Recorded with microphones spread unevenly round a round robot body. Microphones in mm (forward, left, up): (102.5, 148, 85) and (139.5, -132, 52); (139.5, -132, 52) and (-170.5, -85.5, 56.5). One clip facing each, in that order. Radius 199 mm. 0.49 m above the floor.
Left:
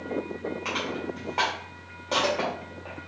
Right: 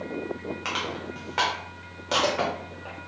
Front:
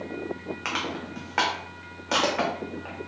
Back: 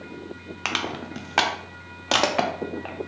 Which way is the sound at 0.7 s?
150° right.